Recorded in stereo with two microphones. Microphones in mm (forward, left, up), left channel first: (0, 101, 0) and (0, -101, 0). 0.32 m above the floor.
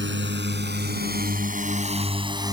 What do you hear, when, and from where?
0.0 s a drone: 65° right (ahead or behind); by 2.5 s 15° right (ahead or behind)